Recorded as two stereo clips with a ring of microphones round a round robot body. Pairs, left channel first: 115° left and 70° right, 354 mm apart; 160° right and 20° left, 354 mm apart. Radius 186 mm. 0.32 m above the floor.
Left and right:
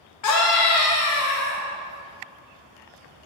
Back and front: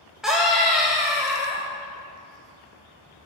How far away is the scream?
About 1.8 m.